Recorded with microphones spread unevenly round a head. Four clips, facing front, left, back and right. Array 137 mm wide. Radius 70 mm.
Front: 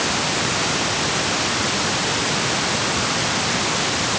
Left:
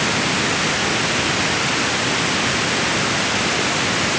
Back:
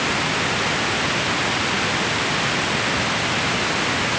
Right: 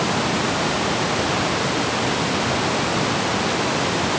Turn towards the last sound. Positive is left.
No sound to turn to.